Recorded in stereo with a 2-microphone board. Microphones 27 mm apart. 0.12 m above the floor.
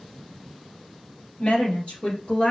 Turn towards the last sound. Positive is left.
turn(degrees=45)  # may be behind; listen again after turning